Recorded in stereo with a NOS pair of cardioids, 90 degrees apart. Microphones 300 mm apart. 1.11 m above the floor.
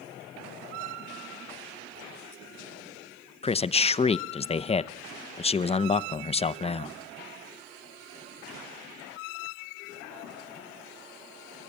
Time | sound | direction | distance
3.4 | a man speaking | 20° left | 0.7 m